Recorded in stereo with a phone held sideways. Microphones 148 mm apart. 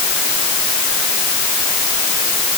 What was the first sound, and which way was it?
Only background noise.